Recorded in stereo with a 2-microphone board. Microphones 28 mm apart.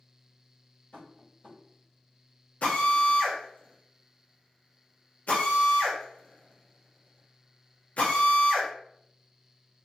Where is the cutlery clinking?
No cutlery clinking in this recording.